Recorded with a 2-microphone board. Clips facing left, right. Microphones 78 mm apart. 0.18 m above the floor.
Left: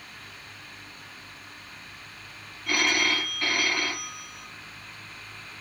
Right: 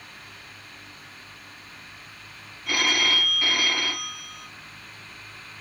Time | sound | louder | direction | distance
2.7 | a phone ringing | even | 5° right (ahead or behind) | 0.7 m